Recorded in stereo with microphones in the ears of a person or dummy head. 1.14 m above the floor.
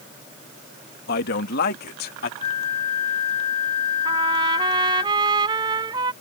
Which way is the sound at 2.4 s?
35° left (ahead or behind).